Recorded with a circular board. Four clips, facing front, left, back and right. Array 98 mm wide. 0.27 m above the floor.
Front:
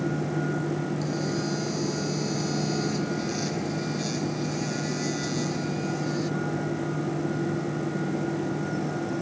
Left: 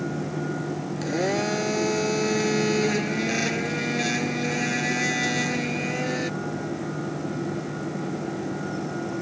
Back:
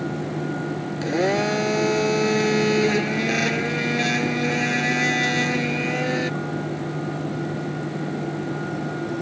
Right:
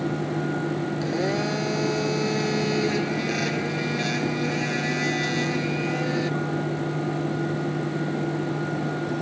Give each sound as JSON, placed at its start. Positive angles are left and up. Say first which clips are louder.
{"t": 1.0, "sound": "a blender", "louder": "left 3 dB, back 7 dB", "azimuth_deg": 175}